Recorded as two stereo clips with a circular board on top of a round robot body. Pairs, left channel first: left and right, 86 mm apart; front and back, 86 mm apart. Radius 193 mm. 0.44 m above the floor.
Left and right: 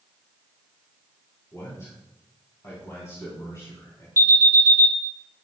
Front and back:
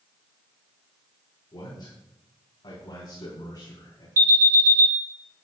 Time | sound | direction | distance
1.5 | a man speaking | 35° left | 6 m
4.2 | an alarm | 140° right | 4 m